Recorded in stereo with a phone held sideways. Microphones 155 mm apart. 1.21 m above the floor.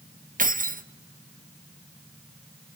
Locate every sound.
0.4 s keys jangling: 60° right (ahead or behind), 0.6 m